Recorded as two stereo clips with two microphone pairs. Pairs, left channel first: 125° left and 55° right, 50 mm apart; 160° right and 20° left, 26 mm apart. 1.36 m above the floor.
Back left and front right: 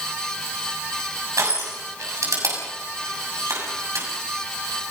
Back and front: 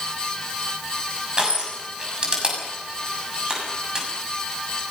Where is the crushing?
45° right, 6.5 m.